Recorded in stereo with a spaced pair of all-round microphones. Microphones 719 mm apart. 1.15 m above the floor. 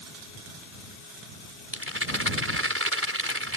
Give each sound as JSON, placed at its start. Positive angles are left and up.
{"t": 1.7, "sound": "a rattle", "side_deg": -15}